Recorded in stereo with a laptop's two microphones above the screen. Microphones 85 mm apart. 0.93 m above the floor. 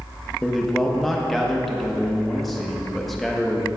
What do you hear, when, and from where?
0.4 s a man speaking: centre (ahead or behind), 0.9 m